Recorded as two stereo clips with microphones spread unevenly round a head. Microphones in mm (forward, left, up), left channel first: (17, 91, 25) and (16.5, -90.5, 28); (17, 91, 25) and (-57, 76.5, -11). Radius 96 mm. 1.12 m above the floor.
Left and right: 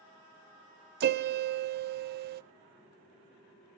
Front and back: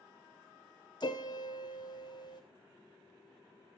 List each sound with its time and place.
1.0 s a piano: 50° right, 0.5 m